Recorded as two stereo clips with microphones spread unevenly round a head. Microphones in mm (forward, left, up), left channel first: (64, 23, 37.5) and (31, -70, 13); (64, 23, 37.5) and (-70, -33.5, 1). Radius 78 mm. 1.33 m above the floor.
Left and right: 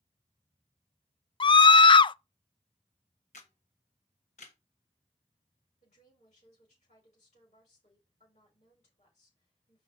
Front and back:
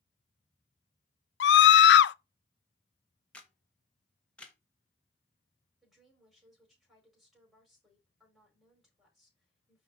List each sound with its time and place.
1.4 s a scream: 25° left, 0.5 m
3.3 s a camera shutter: 105° left, 1.2 m
5.8 s a woman speaking: 115° left, 4.5 m